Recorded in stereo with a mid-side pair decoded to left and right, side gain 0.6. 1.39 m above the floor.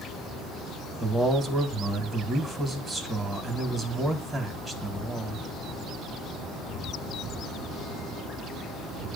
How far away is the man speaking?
About 2.5 m.